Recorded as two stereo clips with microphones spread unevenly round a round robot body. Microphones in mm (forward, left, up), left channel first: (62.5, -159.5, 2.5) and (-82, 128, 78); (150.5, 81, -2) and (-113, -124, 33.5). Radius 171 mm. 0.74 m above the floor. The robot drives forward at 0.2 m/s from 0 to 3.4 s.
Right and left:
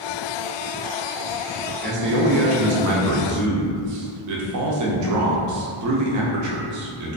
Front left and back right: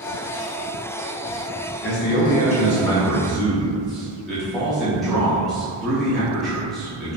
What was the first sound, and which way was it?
A man speaking, 55° left.